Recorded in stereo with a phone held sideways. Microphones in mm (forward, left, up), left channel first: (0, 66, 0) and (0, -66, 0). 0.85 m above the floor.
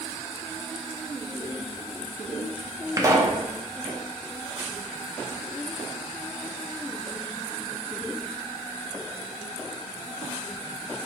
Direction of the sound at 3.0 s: 25° right (ahead or behind).